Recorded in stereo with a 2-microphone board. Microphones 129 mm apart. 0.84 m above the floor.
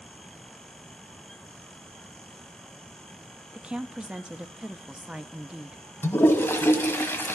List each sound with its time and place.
3.5 s a woman speaking: 10° right (ahead or behind), 0.7 m
6.0 s a toilet flushing: 15° left (ahead or behind), 1.2 m